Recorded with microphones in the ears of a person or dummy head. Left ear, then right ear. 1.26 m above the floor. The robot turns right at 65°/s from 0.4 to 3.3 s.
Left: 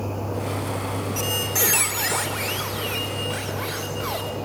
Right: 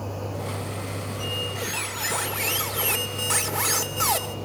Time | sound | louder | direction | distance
1.2 | a squeak | left 5 dB | 110° left | 3 m